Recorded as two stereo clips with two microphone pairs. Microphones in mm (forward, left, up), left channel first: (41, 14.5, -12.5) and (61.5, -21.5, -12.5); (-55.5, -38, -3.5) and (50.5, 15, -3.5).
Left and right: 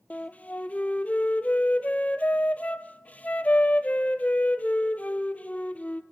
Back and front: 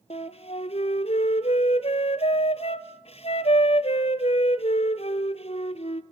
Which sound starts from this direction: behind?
A flute, at 0.1 s.